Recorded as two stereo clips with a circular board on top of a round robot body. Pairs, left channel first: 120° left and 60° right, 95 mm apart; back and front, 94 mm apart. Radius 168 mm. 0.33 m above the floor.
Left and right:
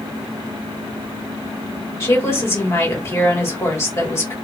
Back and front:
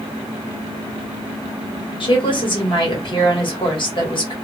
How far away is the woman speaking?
About 1.8 m.